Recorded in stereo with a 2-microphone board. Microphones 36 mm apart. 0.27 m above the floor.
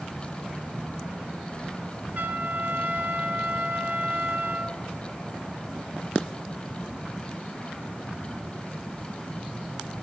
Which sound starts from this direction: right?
A trumpet, at 2.1 s.